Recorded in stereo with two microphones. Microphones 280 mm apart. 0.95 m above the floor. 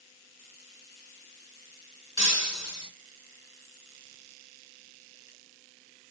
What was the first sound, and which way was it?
Breaking glass, 65° left (ahead or behind).